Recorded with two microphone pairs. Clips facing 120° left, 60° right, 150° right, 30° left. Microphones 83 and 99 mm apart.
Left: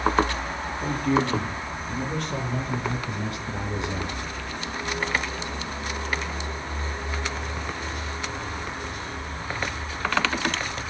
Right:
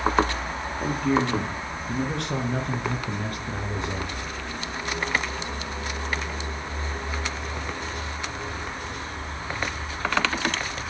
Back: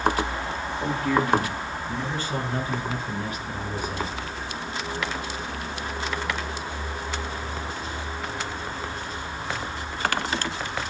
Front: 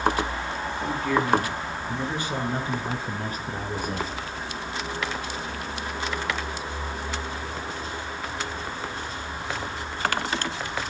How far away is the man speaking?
About 5.5 m.